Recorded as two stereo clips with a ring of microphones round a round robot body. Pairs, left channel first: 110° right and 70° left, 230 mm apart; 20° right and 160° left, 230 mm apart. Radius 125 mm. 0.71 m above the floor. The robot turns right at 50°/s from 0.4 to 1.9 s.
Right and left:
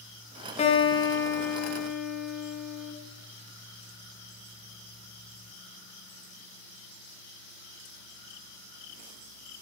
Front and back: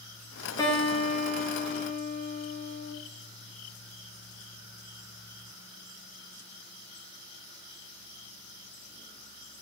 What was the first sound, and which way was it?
A guitar, 85° right.